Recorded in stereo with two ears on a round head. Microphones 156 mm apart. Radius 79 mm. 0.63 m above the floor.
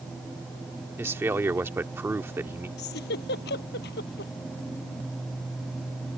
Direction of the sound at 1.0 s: 15° right (ahead or behind).